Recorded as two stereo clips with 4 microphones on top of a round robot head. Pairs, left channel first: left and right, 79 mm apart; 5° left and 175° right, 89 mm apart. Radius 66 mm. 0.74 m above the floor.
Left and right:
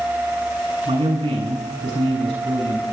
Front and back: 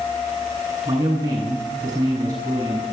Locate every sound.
0.8 s a man speaking: 115° right, 8.5 m